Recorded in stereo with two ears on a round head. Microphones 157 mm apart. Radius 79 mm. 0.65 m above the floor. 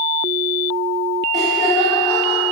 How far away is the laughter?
About 2 m.